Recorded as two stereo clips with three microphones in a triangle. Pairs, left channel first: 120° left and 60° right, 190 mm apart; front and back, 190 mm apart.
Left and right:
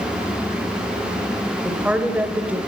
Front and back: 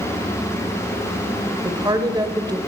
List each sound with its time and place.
1.6 s a woman speaking: 135° right, 1.4 m